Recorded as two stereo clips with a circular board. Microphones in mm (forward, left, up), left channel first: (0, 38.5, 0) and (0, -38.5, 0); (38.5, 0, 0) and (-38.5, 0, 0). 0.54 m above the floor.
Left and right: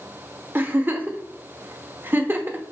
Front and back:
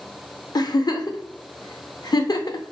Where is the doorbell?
No doorbell in this recording.